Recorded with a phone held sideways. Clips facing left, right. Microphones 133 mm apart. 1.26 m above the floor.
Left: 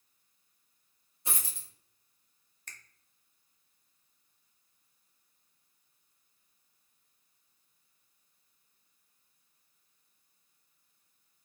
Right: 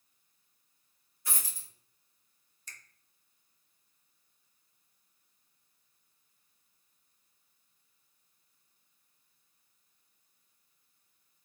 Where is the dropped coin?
25° left (ahead or behind), 0.7 m.